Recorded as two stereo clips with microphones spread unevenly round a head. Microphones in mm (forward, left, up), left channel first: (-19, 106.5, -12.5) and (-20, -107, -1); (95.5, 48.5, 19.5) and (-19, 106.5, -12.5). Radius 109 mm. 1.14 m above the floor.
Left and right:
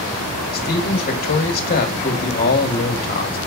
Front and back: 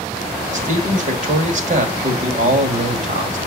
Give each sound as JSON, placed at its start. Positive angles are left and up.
{"t": 0.5, "sound": "a man speaking", "azimuth_deg": 135, "distance_m": 2.0}